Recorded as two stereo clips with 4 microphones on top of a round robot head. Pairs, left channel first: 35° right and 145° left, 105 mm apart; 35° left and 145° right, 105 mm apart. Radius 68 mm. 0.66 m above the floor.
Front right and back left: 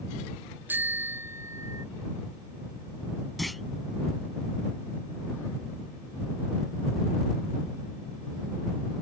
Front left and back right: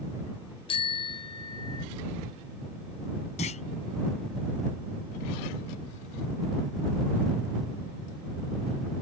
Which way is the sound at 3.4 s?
55° left.